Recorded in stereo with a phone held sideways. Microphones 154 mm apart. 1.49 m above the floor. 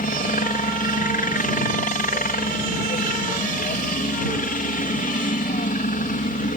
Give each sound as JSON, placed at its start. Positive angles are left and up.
{"t": 0.0, "sound": "a helicopter", "side_deg": 65}